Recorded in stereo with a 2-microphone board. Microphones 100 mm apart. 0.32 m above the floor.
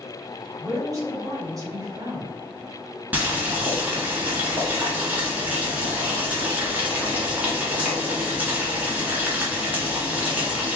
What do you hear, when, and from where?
0.6 s a woman speaking: 40° right (ahead or behind), 1.8 m
3.1 s boiling: 15° right (ahead or behind), 1.4 m